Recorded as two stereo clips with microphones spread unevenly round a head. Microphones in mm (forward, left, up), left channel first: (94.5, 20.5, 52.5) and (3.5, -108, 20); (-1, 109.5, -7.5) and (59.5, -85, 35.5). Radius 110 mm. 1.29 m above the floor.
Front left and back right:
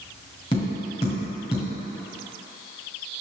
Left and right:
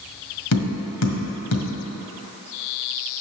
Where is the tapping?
105° left, 1.8 m.